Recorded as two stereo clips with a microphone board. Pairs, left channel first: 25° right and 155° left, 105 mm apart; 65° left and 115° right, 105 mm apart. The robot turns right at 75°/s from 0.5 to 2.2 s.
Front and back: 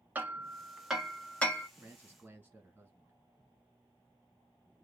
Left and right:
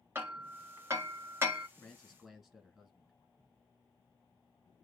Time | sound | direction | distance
0.1 | hammering | 150° right | 1.2 m
1.8 | a man speaking | 140° left | 1.4 m